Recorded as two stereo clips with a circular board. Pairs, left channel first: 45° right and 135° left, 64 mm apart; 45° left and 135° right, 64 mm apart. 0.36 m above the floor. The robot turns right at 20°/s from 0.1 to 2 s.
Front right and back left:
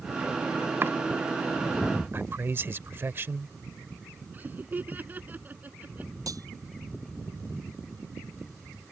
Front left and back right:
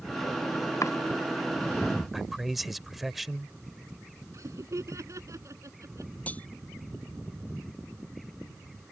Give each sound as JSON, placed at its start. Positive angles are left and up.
{"t": 0.8, "sound": "chopping", "azimuth_deg": 80}
{"t": 2.1, "sound": "a man speaking", "azimuth_deg": 140}
{"t": 4.3, "sound": "laughter", "azimuth_deg": -165}
{"t": 6.3, "sound": "cutlery clinking", "azimuth_deg": 115}